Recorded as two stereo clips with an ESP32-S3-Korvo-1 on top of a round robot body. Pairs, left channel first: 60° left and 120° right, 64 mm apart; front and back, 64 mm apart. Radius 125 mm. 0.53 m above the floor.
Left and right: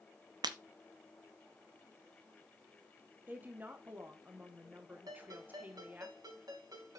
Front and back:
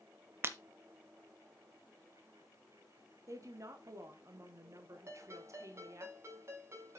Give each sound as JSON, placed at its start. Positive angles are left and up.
{"t": 0.4, "sound": "breaking glass", "azimuth_deg": -125, "distance_m": 0.6}
{"t": 3.3, "sound": "a woman speaking", "azimuth_deg": -175, "distance_m": 1.8}
{"t": 5.1, "sound": "a ringtone", "azimuth_deg": -135, "distance_m": 4.0}